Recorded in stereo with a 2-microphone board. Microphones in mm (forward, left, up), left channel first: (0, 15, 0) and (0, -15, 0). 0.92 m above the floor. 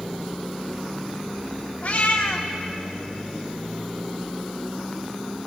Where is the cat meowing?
75° left (ahead or behind), 1.2 m.